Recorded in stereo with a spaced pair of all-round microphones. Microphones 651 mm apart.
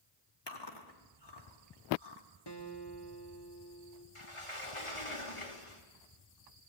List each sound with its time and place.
0.5 s chewing: 40° left (ahead or behind), 2.5 m
2.5 s a guitar: 35° left (ahead or behind), 1.9 m
4.2 s a sliding door: 50° left (ahead or behind), 2.5 m